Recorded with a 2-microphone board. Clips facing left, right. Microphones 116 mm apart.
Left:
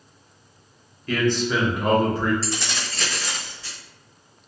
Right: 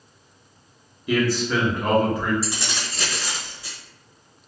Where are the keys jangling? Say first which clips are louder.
Left 1 dB; 15° right (ahead or behind), 0.8 m.